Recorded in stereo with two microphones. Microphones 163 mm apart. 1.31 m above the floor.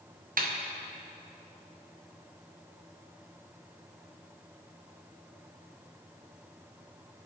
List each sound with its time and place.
0.4 s a snare drum: 60° right (ahead or behind), 0.6 m